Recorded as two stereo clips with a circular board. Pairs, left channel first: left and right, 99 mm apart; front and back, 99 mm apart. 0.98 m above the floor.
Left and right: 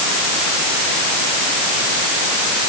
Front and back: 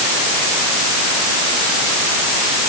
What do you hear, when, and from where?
Only background noise.